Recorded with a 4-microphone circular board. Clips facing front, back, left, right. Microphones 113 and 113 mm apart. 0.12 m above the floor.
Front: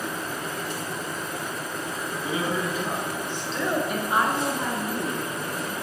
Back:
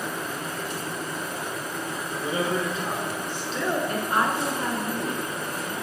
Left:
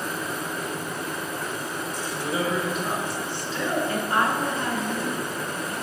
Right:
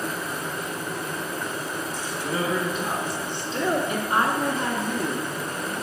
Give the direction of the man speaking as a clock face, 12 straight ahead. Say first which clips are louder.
Back 1 dB, even; 7 o'clock.